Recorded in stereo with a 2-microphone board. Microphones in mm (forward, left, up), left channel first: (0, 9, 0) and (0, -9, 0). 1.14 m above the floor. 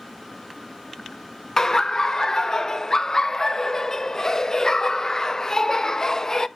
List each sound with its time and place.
1.6 s laughter: 30° left (ahead or behind), 0.6 m